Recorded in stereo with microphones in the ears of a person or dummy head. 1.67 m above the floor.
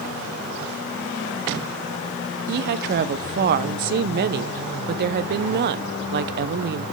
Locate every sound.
2.5 s a woman speaking: 55° right (ahead or behind), 0.8 m